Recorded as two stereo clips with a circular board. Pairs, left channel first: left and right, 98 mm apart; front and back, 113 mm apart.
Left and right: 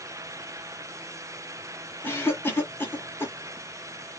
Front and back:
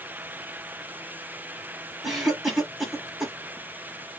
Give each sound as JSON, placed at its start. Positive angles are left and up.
{"t": 2.0, "sound": "a cough", "azimuth_deg": 90, "distance_m": 1.3}